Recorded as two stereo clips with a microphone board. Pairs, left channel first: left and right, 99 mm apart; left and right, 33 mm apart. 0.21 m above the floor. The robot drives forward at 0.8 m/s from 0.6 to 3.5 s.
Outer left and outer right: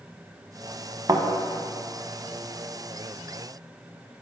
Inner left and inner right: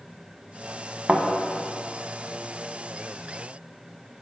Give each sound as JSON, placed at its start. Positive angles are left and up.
{"t": 1.1, "sound": "a thud", "side_deg": -40, "distance_m": 0.7}